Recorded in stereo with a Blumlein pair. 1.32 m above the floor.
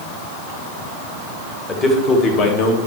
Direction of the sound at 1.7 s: 20° left.